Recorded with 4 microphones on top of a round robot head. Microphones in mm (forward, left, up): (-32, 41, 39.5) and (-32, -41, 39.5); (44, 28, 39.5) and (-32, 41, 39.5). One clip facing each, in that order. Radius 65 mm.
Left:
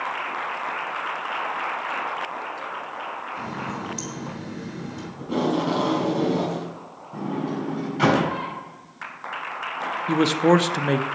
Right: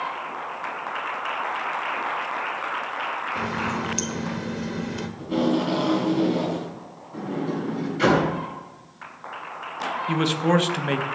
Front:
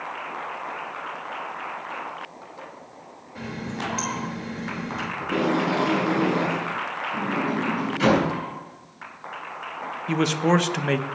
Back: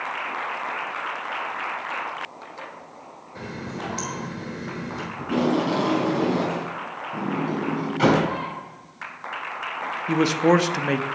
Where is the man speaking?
95° left, 0.6 m.